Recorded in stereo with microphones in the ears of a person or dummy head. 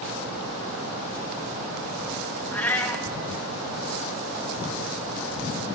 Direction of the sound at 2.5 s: 10° left (ahead or behind).